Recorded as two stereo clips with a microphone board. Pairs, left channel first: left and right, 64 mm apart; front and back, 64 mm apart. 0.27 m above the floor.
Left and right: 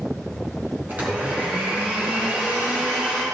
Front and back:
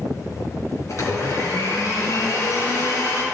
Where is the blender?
30° right, 2.5 m.